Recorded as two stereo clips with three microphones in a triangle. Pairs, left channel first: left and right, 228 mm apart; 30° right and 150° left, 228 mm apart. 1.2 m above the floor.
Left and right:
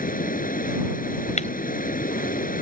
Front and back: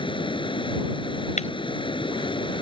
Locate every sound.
0.0 s running water: 40° left
1.4 s breaking glass: 30° left